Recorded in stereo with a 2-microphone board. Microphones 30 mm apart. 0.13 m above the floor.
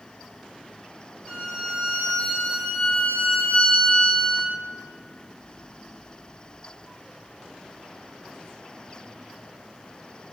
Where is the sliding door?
No sliding door in this recording.